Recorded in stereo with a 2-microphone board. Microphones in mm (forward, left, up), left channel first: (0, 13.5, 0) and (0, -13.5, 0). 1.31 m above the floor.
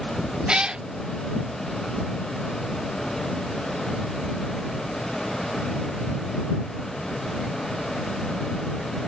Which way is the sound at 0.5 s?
30° right (ahead or behind).